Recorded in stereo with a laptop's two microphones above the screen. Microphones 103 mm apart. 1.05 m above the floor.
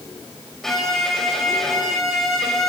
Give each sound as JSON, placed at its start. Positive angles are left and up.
{"t": 0.6, "sound": "a violin", "side_deg": 5, "distance_m": 5.0}